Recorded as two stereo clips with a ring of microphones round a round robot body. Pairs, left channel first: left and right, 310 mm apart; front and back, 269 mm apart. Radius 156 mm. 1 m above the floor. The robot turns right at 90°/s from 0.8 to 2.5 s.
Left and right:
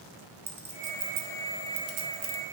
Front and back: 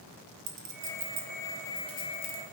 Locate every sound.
0.5 s a clink: 175° right, 1.1 m; by 2.4 s 25° right, 1.1 m